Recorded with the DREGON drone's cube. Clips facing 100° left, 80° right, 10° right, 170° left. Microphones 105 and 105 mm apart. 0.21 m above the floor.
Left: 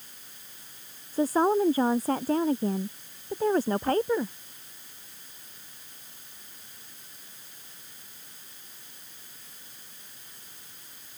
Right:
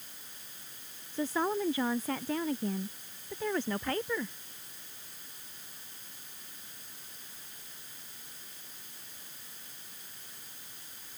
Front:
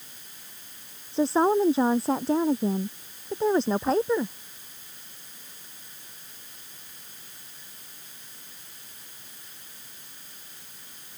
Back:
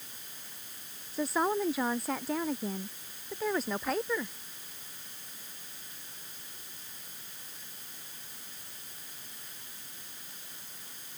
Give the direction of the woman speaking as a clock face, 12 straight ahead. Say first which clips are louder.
Left 8 dB, front 8 dB; 10 o'clock.